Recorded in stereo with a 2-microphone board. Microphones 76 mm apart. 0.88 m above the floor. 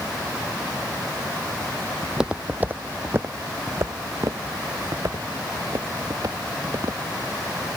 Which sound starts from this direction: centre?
Footsteps, at 2.0 s.